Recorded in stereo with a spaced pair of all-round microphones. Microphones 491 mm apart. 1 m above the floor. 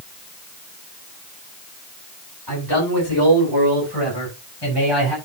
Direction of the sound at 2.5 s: 50° left (ahead or behind).